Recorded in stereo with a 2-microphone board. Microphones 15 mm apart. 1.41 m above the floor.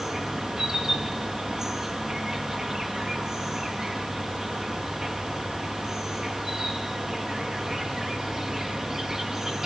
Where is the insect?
30° right (ahead or behind), 3.5 m.